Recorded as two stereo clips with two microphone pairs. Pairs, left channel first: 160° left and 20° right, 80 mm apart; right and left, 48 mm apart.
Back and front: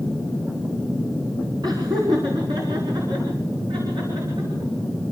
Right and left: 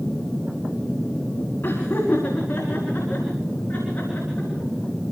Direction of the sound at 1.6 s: 45° right.